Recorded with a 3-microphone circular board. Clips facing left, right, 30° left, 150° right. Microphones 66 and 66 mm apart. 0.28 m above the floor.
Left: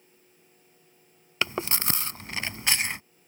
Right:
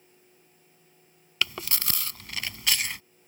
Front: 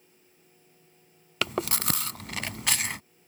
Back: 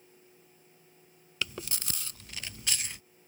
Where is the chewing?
30° left.